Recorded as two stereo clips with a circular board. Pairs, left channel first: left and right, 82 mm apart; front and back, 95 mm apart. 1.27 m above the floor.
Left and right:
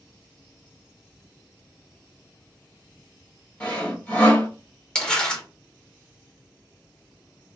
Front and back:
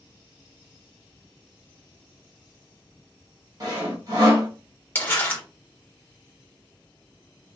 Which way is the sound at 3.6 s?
155° left.